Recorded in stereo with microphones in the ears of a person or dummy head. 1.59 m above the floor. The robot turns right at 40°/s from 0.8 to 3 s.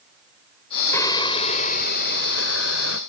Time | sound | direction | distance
0.9 | singing | 20° left | ?